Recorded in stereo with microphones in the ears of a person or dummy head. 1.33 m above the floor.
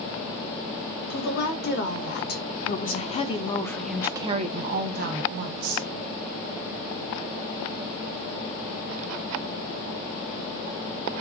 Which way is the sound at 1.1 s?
65° left (ahead or behind).